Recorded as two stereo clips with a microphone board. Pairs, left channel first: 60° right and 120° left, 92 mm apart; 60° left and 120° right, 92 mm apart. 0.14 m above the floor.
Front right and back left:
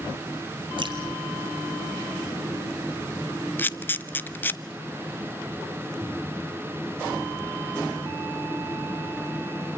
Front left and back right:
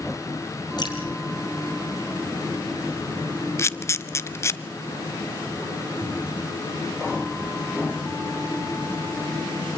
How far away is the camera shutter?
About 0.7 m.